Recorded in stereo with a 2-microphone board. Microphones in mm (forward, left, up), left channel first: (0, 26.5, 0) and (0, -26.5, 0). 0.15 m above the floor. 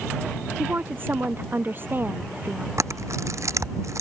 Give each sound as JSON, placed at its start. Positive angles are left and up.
{"t": 0.6, "sound": "a woman speaking", "side_deg": -40}
{"t": 2.8, "sound": "a camera shutter", "side_deg": -70}